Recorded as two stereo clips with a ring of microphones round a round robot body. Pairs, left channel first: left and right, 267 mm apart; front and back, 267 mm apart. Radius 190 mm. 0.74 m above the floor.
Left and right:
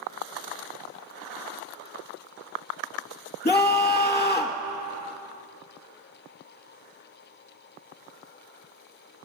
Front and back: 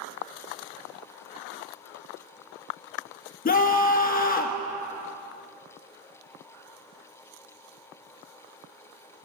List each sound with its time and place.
3.5 s a scream: 35° left, 1.2 m